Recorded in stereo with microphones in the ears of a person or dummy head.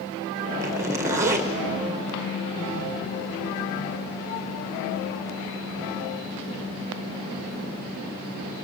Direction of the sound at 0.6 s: 10° right (ahead or behind).